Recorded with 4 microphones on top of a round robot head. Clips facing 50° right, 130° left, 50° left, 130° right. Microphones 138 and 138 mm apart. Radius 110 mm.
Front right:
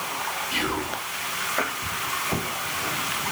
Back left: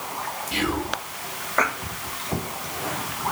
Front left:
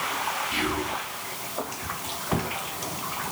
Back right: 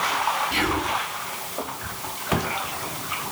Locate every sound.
0.5 s whispering: 175° right, 1.2 m